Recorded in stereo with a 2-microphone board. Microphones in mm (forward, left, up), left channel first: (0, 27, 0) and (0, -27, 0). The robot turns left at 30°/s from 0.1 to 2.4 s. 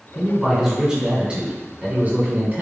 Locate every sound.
0.1 s a man speaking: 5° right, 1.5 m; by 2.6 s 70° right, 1.5 m